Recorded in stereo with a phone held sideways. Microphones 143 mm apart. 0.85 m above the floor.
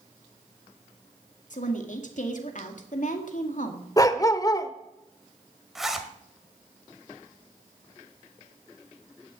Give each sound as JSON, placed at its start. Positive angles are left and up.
{"t": 1.5, "sound": "a woman speaking", "side_deg": 60, "distance_m": 2.0}
{"t": 4.0, "sound": "a dog barking", "side_deg": 25, "distance_m": 0.8}
{"t": 5.8, "sound": "a zipper", "side_deg": 0, "distance_m": 1.5}